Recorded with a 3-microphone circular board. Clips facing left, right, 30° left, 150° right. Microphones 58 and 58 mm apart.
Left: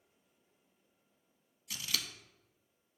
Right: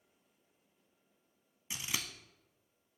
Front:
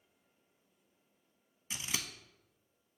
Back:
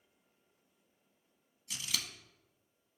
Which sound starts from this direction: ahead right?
Scissors, at 1.7 s.